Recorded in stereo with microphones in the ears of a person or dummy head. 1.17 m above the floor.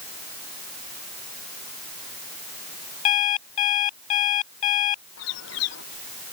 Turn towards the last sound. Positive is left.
turn(degrees=75)  # may be behind; listen again after turning